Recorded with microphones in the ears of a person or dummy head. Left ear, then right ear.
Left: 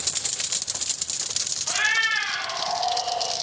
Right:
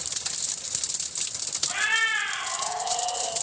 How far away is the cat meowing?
About 1.0 m.